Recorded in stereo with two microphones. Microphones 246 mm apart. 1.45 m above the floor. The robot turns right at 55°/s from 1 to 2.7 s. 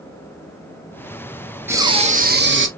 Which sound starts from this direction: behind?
Breathing, at 1.7 s.